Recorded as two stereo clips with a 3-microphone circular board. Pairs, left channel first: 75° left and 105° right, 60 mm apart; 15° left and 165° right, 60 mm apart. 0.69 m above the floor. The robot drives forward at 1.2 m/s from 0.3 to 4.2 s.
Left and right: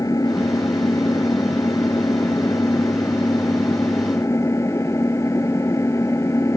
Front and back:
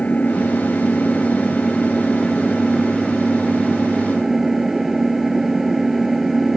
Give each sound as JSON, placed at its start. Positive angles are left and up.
{"t": 0.0, "sound": "an engine running", "azimuth_deg": 80}